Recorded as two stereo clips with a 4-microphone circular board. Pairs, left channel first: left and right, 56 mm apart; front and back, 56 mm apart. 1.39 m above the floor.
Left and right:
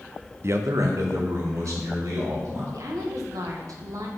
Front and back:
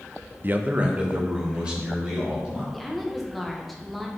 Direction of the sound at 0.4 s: 130° right.